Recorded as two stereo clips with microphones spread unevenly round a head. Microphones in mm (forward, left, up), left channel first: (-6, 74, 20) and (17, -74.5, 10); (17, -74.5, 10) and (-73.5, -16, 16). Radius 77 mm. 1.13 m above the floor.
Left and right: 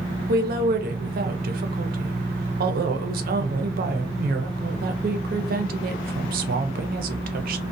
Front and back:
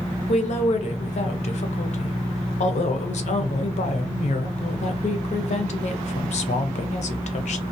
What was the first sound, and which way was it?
A woman speaking, 50° right.